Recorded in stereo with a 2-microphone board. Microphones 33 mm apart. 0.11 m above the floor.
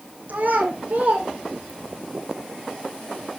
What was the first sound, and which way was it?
A child speaking, 60° right (ahead or behind).